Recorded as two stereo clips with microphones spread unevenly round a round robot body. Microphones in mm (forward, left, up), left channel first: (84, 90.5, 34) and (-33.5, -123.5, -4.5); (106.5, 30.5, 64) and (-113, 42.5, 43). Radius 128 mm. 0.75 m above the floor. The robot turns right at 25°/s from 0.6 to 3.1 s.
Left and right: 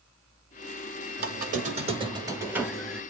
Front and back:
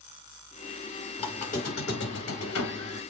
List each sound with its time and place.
1.2 s a squeak: 70° right, 1.0 m; by 3.0 s 25° right, 1.0 m